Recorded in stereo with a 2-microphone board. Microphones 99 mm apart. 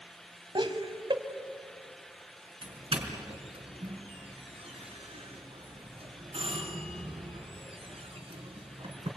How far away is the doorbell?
About 4.5 m.